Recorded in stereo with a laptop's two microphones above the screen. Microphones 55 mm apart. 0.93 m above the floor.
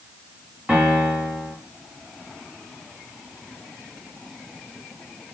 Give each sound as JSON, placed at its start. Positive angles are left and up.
{"t": 0.7, "sound": "a piano", "side_deg": -20, "distance_m": 1.1}